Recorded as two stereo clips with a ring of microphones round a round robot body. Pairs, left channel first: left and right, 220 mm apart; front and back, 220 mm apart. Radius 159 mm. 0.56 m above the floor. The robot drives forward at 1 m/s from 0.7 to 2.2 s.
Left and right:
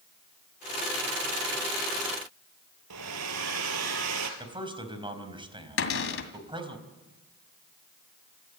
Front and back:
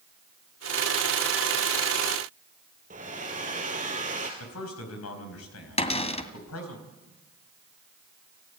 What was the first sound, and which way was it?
A hair dryer, 115° right.